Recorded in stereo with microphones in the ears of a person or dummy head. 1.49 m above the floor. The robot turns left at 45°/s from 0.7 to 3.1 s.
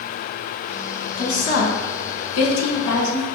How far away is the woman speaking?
About 1.2 m.